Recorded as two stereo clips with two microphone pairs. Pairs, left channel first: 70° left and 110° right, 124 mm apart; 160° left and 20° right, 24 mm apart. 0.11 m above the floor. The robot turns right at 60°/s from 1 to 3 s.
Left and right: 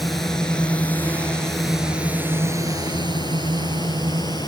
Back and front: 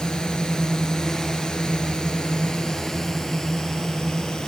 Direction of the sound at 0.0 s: 160° left.